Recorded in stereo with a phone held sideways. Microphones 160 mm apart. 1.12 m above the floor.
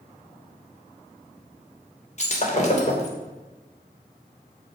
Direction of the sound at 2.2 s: 45° left (ahead or behind).